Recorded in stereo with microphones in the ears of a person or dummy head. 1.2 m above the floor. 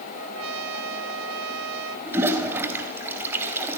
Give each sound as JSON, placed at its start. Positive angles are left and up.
{"t": 0.1, "sound": "a trumpet", "side_deg": -80, "distance_m": 2.5}
{"t": 2.1, "sound": "a toilet flushing", "side_deg": -10, "distance_m": 4.0}